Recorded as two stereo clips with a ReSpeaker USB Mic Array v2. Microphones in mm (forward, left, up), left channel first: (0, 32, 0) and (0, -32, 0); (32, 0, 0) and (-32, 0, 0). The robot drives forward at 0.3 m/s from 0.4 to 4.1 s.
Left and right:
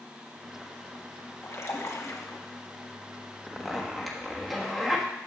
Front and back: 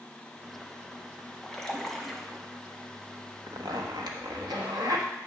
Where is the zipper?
Straight behind, 1.1 m.